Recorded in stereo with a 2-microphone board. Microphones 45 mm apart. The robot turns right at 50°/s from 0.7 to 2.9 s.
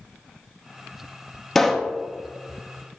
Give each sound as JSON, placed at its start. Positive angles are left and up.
{"t": 1.6, "sound": "a pop", "side_deg": 5, "distance_m": 0.5}